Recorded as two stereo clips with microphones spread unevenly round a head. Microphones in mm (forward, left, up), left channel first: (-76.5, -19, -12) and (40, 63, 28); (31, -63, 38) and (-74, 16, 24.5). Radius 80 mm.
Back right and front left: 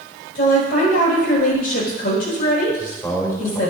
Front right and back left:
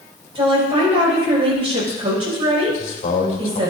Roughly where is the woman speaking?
Behind.